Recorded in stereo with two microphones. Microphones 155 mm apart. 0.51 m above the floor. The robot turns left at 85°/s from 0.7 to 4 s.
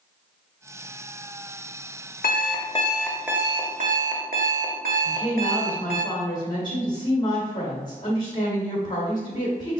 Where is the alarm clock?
80° left, 0.7 m; by 6.0 s 70° right, 0.7 m.